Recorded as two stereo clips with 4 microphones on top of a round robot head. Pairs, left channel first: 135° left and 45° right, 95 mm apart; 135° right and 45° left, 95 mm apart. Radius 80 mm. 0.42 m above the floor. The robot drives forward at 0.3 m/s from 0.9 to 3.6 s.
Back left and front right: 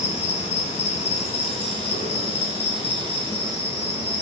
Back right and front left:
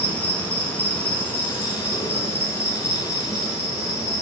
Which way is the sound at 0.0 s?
150° left.